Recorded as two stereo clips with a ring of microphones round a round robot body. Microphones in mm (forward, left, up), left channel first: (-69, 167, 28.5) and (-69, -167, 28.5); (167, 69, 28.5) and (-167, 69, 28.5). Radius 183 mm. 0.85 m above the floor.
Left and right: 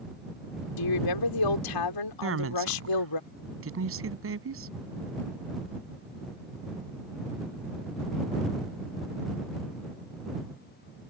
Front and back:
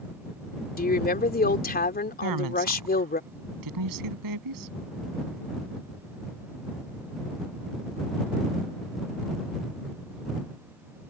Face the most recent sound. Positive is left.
turn(degrees=-140)